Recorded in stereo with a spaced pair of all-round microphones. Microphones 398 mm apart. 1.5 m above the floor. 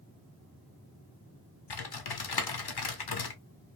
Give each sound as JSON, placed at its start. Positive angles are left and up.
{"t": 1.7, "sound": "typing on a keyboard", "side_deg": 70, "distance_m": 0.5}